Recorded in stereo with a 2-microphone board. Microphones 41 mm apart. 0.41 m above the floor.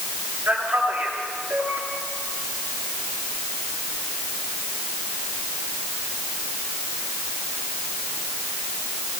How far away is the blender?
No blender in this recording.